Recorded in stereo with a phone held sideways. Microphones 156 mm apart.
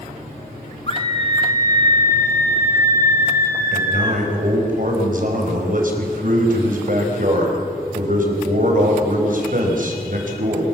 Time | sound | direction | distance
0.9 | a scream | 40° left (ahead or behind) | 1.8 m
3.7 | a man speaking | 60° right (ahead or behind) | 5 m